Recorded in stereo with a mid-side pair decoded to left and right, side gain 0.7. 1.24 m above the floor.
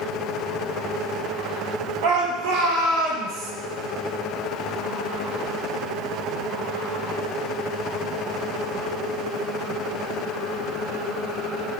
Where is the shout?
65° right, 4.5 m; by 3.5 s 55° right, 2.0 m.